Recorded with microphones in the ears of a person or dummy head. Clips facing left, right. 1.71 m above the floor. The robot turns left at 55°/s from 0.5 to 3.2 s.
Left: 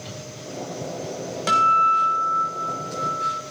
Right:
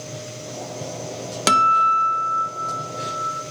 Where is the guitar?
95° right, 0.8 m; by 3.4 s 170° left, 0.8 m.